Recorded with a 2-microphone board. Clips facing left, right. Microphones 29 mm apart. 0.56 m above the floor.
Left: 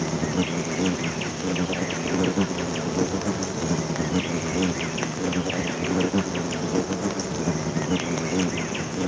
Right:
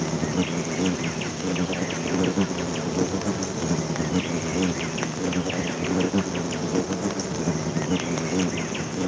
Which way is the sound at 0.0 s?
10° left (ahead or behind).